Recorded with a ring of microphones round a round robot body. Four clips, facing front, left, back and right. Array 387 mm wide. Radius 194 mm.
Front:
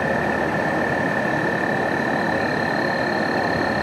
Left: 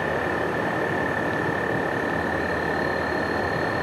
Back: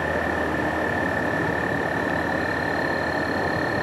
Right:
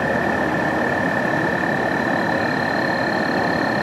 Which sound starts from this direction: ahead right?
An insect, at 0.0 s.